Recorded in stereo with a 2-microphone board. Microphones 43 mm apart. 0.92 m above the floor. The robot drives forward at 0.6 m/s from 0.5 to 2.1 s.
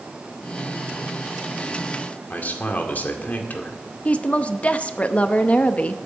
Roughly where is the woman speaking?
Left.